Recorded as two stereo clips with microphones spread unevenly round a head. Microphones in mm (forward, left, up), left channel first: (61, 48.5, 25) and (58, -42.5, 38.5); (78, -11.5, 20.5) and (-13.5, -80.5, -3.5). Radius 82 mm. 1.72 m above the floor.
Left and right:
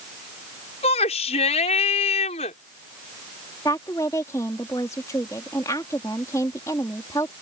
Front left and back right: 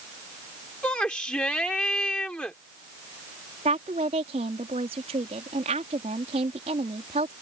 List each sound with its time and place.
0.8 s a shout: 120° left
3.6 s a woman speaking: 160° left